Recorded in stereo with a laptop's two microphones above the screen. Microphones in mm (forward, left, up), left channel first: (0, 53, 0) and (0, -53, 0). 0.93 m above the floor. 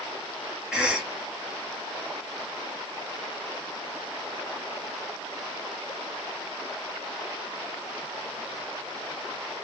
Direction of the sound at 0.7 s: 10° right (ahead or behind).